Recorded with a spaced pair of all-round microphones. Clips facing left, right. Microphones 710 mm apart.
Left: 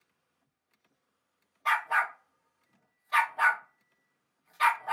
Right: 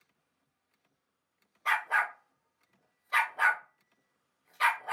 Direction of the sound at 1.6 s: 30° left (ahead or behind).